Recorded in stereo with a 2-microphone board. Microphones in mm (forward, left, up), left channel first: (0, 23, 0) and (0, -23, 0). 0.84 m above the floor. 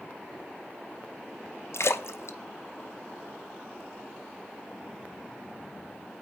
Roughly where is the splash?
Left.